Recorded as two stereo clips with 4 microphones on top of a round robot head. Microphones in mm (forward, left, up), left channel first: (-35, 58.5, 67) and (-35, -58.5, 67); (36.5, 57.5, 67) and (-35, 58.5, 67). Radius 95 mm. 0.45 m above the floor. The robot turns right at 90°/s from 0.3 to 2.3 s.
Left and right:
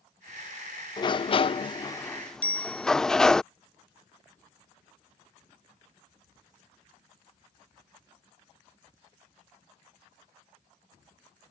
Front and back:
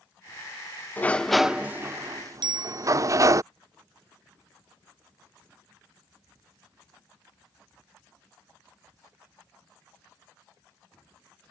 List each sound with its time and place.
1.0 s a sliding door: 55° left; by 3.4 s 175° left
2.4 s a bicycle bell: 165° left